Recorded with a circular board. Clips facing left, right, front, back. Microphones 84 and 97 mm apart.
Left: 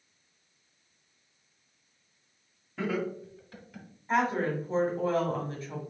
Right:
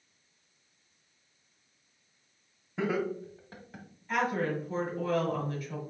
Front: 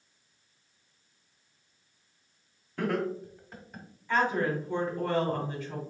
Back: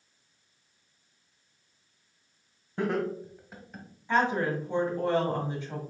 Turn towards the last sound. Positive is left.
turn(degrees=125)